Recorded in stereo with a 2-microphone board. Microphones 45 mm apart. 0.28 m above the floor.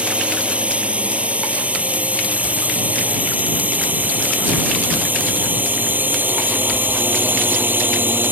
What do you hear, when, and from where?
0.0 s a drone: 30° right (ahead or behind); by 8.3 s 50° right (ahead or behind)